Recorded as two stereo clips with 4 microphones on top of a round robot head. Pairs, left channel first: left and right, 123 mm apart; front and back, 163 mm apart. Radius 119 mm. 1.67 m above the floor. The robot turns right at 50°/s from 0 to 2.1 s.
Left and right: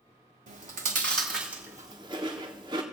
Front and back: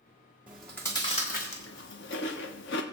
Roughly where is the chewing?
Right.